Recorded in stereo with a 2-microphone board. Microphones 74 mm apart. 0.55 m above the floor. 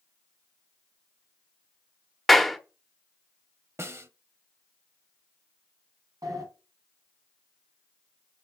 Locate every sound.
2.3 s a clap: centre (ahead or behind), 0.9 m
3.8 s a snare drum: 40° right (ahead or behind), 0.7 m
6.2 s a sliding door: 60° right (ahead or behind), 3.5 m